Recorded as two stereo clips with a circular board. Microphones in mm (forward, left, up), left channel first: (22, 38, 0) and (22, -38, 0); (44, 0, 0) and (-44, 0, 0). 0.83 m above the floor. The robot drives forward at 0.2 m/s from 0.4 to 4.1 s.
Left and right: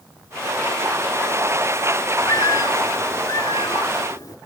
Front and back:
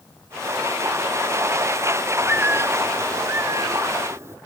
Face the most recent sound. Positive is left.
turn(degrees=125)